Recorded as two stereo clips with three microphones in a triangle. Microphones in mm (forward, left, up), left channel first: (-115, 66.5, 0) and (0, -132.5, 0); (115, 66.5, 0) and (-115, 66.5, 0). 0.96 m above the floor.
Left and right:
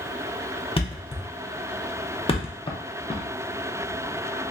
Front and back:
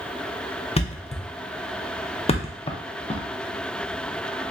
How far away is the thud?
About 0.5 m.